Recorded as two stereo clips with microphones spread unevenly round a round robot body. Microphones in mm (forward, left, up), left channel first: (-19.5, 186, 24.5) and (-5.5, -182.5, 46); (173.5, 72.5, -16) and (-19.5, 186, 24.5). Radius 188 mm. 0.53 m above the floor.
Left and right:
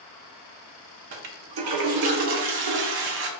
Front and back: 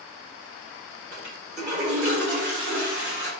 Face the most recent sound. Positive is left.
turn(degrees=-115)